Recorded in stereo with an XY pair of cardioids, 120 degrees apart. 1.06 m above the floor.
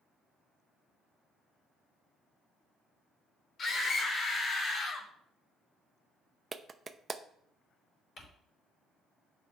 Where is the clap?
25° right, 0.7 m.